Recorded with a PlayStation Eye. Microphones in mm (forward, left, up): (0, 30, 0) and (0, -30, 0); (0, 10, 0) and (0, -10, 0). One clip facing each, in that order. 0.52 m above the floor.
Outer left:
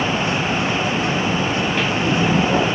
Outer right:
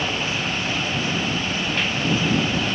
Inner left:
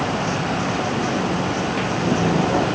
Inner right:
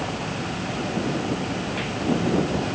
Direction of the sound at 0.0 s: 65° left (ahead or behind).